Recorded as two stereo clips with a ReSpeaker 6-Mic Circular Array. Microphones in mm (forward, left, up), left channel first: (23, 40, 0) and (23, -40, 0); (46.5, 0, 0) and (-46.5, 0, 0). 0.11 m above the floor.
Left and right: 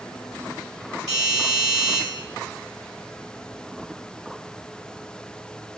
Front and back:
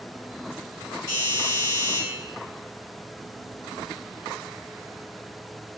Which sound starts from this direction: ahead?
A doorbell, at 1.1 s.